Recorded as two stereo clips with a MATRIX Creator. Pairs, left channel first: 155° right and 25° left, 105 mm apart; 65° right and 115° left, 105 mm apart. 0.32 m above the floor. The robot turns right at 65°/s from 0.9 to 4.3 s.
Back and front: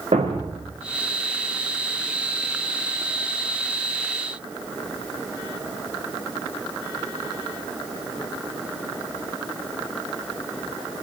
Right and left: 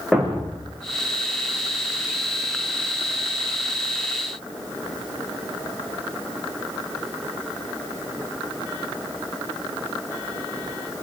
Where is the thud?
25° left, 7.5 m.